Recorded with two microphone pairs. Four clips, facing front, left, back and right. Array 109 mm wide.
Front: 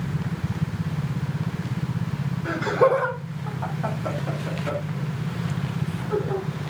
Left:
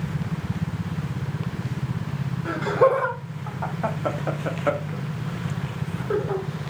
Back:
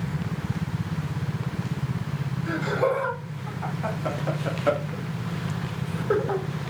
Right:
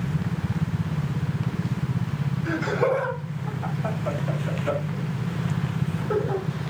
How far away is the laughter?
About 3 m.